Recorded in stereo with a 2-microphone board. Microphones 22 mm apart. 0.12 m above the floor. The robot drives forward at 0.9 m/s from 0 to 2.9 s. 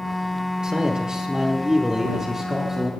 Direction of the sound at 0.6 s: 40° right (ahead or behind).